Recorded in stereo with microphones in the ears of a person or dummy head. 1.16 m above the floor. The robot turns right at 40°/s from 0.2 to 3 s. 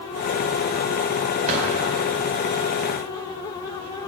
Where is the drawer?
35° right (ahead or behind), 3 m; by 1.7 s 30° right (ahead or behind), 3 m.